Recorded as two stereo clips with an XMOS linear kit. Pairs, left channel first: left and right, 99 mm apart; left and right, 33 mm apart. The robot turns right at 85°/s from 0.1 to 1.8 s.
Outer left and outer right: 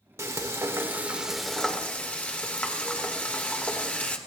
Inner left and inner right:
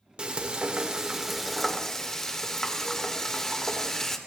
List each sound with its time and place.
0.2 s frying: 110° right, 1.6 m; by 4.2 s 30° left, 1.6 m